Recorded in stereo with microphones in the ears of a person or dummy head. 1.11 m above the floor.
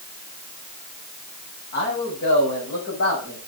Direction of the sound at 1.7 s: 65° left (ahead or behind).